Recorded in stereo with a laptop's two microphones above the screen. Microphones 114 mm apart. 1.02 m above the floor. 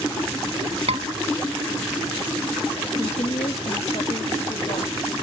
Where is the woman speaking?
75° left (ahead or behind), 2.5 m.